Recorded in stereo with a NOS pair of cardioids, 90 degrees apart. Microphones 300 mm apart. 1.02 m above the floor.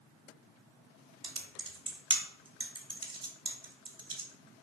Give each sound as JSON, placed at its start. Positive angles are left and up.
{"t": 1.2, "sound": "typing on a keyboard", "azimuth_deg": -15, "distance_m": 1.0}